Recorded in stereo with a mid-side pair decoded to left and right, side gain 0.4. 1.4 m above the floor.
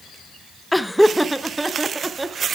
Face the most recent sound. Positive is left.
turn(degrees=-25)